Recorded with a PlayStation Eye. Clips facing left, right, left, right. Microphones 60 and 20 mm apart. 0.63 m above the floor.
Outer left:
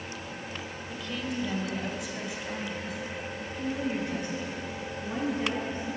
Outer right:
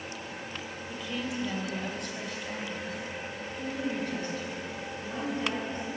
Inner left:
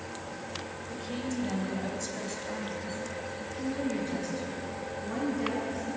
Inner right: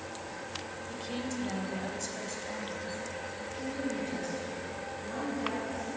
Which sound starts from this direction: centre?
A woman speaking, at 0.9 s.